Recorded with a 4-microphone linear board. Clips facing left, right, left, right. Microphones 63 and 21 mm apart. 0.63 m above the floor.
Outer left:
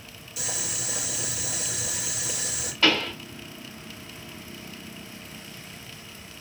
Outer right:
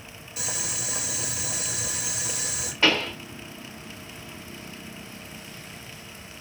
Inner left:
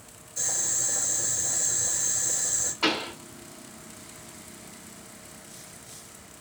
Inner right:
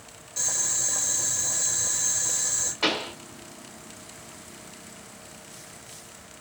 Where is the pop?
20° right (ahead or behind), 2.0 m.